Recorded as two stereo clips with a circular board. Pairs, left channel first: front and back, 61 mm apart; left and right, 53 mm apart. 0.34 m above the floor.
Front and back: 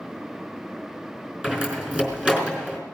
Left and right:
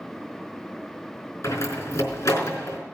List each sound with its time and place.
1.4 s a door slam: 110° left, 4 m